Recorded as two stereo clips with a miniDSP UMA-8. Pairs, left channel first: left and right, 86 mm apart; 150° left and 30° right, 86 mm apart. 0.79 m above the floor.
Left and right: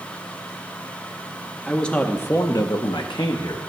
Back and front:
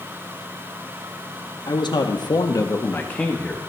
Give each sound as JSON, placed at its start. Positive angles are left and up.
{"t": 1.7, "sound": "a man speaking", "azimuth_deg": 170, "distance_m": 1.1}